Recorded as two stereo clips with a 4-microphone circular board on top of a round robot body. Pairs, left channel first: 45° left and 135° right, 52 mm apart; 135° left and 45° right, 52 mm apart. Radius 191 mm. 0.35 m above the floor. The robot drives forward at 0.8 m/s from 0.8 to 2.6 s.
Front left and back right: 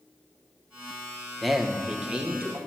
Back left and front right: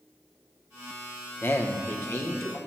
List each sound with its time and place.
1.4 s a man speaking: 135° left, 1.0 m; by 2.6 s 165° left, 1.6 m